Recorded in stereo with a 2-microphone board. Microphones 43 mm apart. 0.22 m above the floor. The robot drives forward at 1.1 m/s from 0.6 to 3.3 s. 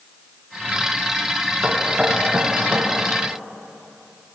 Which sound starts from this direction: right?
Knocking, at 1.6 s.